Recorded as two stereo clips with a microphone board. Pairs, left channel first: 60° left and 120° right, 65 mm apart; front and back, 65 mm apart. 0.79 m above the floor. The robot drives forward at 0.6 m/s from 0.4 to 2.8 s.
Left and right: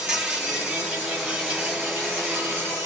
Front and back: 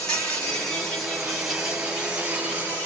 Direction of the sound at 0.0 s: 55° right.